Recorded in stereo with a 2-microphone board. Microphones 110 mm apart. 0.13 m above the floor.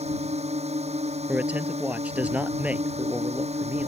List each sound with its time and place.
0.0 s a drone: 75° right (ahead or behind)
1.3 s a man speaking: 15° right (ahead or behind)